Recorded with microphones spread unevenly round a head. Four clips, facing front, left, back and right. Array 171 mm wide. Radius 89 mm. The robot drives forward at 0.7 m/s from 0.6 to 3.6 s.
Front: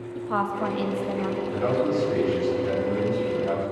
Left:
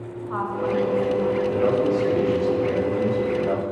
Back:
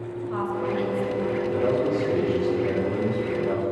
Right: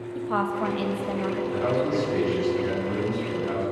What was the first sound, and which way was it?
A woman speaking, 50° right.